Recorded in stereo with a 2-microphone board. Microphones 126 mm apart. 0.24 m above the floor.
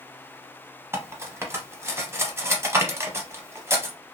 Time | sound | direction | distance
0.9 | cutlery clinking | 20° right (ahead or behind) | 0.7 m